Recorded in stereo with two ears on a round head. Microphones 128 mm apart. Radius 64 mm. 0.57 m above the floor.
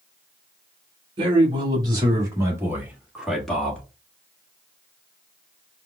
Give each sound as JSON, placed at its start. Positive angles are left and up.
{"t": 1.2, "sound": "a man speaking", "side_deg": -40, "distance_m": 1.8}